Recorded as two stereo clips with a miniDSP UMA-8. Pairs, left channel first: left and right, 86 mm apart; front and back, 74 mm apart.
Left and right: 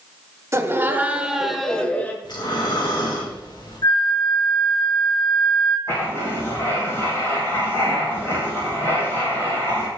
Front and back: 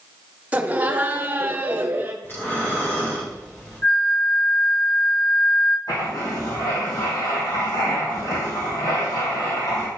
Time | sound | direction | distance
0.5 | laughter | 120° right | 1.1 m
2.2 | breathing | 60° left | 2.5 m
3.8 | a flute | 55° left | 1.9 m
5.9 | writing | 30° left | 3.5 m